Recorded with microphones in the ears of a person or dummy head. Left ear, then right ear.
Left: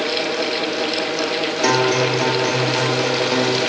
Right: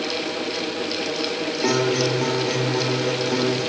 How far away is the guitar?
About 1.7 m.